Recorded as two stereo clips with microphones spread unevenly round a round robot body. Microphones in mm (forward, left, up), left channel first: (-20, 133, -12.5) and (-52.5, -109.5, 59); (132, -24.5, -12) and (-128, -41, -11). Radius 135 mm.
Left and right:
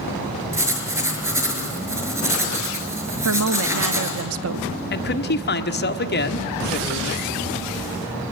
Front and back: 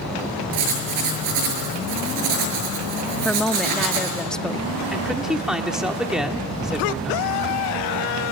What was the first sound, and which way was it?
Writing, 175° right.